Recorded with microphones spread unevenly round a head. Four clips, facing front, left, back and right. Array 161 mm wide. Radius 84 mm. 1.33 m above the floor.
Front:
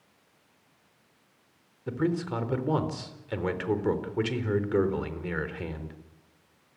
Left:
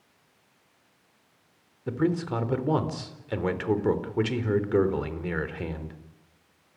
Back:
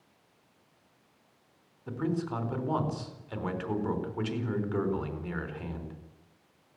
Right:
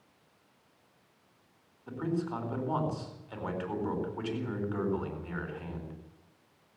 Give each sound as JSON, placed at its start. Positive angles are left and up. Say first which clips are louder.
{"t": 1.9, "sound": "a man speaking", "louder": "left 7 dB, front 3 dB", "azimuth_deg": 60, "distance_m": 4.0}